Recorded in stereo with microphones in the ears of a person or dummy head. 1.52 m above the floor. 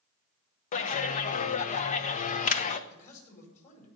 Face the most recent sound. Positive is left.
turn(degrees=45)  # may be behind; listen again after turning